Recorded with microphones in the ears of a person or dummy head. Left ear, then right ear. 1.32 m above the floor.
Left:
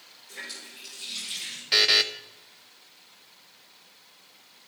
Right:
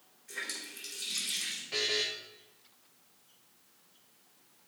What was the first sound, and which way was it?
A running tap, 35° right (ahead or behind).